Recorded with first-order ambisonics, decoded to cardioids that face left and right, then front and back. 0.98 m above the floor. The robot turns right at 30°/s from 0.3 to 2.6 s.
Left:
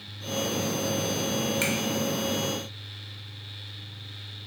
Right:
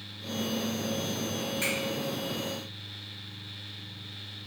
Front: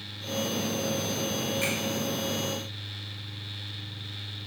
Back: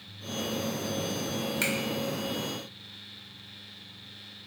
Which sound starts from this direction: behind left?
A finger snap, at 1.6 s.